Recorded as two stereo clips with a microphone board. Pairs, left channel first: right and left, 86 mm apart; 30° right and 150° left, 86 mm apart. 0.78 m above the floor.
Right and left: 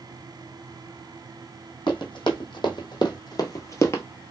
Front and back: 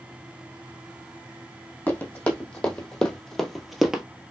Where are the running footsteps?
100° right, 1.9 m; by 4.0 s 135° right, 0.9 m.